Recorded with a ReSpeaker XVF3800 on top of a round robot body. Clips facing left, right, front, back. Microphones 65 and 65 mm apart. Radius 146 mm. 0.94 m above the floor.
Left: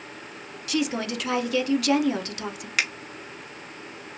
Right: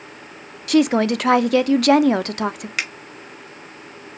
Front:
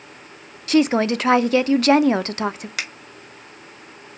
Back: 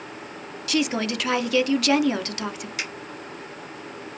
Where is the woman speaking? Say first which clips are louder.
Right 11 dB, front 7 dB; 55° right, 0.5 m.